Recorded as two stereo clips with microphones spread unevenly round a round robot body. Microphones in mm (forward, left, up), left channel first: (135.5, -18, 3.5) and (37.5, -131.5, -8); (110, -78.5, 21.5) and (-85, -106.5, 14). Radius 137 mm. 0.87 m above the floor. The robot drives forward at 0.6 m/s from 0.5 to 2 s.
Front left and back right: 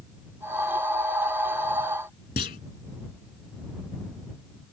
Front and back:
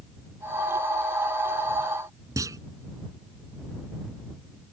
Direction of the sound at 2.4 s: 110° left.